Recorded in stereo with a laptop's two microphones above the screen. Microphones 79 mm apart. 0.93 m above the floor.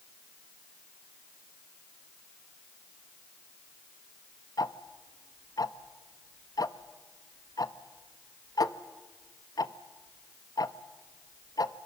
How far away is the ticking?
About 0.9 m.